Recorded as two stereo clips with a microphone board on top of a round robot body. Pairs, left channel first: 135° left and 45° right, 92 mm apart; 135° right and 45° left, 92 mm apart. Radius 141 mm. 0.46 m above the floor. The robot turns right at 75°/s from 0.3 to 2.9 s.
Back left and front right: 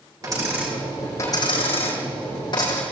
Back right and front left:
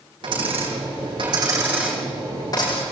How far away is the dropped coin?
About 7.5 m.